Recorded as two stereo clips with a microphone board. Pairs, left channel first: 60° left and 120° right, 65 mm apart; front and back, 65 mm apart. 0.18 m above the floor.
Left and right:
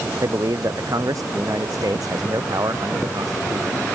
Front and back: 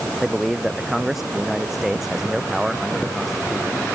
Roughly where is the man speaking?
Right.